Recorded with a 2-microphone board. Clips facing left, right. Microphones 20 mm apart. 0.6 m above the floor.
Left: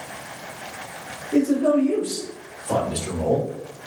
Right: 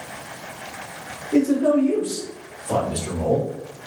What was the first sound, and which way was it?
A man speaking, 35° right (ahead or behind).